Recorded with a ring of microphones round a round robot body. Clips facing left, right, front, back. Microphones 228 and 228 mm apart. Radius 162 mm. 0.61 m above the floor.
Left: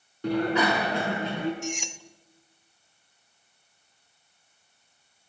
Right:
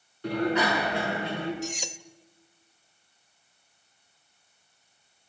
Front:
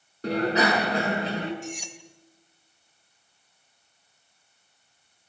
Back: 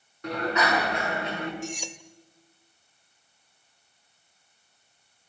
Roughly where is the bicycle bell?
Ahead left.